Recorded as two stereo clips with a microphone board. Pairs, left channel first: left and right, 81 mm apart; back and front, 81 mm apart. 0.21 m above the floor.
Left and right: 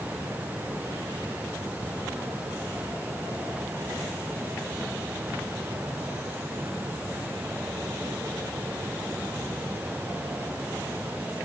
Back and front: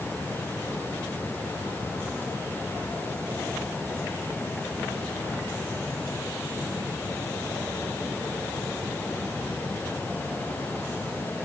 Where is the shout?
No shout in this recording.